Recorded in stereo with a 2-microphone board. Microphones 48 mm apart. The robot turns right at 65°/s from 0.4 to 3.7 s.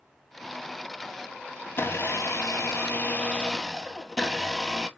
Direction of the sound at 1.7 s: 45° left.